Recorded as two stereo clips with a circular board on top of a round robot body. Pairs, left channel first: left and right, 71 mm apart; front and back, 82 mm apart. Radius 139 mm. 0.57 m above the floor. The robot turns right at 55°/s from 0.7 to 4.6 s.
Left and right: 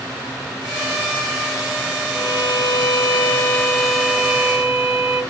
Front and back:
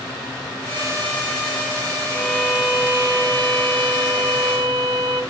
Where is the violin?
70° left, 3.5 m; by 5.2 s 150° right, 3.5 m.